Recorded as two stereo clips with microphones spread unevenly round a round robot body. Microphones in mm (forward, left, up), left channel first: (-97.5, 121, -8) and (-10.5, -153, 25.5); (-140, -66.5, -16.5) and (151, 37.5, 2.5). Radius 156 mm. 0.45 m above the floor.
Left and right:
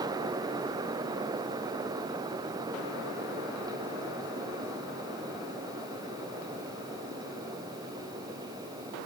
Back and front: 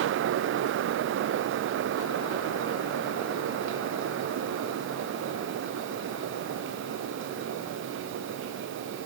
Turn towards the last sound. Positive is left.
No sound to turn to.